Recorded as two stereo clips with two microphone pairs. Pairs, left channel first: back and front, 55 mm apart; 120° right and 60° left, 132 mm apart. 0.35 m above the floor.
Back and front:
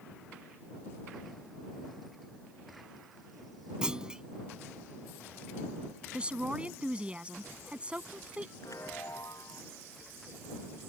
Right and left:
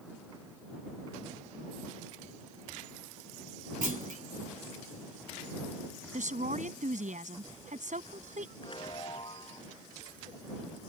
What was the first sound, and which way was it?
A clunk, 70° left.